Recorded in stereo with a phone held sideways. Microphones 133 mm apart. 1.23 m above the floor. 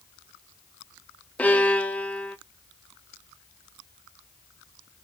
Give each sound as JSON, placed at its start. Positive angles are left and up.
{"t": 1.4, "sound": "a violin", "side_deg": 10, "distance_m": 1.0}